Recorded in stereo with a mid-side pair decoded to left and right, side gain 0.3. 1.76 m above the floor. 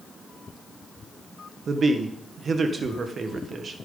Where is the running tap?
I don't hear a running tap.